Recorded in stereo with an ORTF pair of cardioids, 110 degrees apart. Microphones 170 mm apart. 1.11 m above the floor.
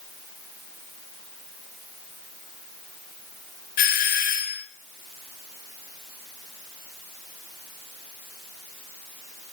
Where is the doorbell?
60° left, 2 m.